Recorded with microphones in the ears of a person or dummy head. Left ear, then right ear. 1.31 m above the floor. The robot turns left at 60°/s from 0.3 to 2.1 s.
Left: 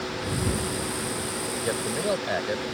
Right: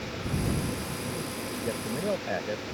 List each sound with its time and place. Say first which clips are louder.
1.6 s a man speaking: left 4 dB; 55° left (ahead or behind); by 2.6 s 25° left (ahead or behind)